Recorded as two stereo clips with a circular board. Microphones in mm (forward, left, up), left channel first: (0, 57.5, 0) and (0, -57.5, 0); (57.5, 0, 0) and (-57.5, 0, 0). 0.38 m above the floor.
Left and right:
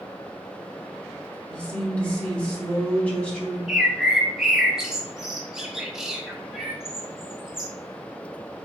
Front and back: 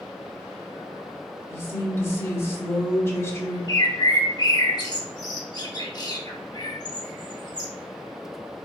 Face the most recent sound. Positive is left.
turn(degrees=-5)